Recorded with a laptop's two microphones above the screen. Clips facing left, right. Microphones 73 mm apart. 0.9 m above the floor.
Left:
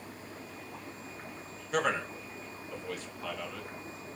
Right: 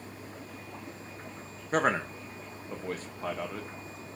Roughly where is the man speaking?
Right.